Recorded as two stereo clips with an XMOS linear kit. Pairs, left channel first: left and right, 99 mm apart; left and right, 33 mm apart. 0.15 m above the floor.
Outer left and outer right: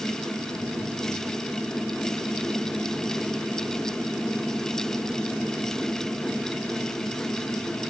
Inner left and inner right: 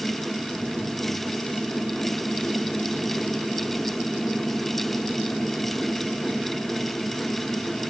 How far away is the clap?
No clap in this recording.